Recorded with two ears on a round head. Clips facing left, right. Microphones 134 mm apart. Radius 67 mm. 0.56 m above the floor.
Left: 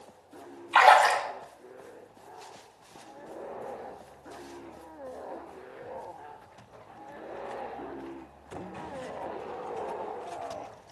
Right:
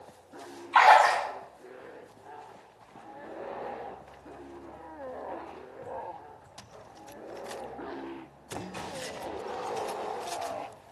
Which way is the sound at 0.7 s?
30° left (ahead or behind).